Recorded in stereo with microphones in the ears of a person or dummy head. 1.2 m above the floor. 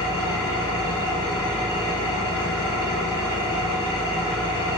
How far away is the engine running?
About 1.4 m.